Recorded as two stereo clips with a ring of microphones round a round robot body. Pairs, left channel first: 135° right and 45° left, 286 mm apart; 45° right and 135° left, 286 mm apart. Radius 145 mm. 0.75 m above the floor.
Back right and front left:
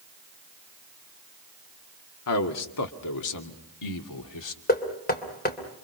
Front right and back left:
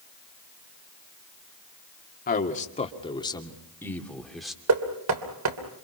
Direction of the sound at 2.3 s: 105° right.